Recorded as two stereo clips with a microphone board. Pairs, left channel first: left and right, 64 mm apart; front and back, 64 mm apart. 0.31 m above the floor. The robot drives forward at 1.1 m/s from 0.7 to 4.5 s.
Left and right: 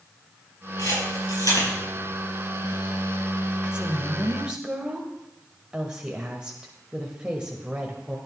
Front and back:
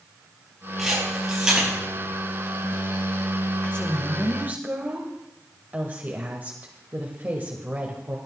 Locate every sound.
0.8 s a camera shutter: 90° left, 5.5 m; by 1.7 s 100° left, 5.5 m
3.6 s a woman speaking: 30° right, 1.0 m; by 8.2 s 155° right, 1.1 m